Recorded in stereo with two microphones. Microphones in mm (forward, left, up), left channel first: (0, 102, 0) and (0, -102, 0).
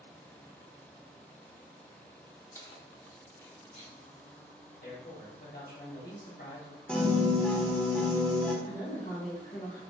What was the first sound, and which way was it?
Keys jangling, 10° left (ahead or behind).